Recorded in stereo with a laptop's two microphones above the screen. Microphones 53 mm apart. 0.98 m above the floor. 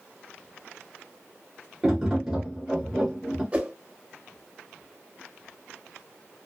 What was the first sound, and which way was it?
Tapping, 10° right (ahead or behind).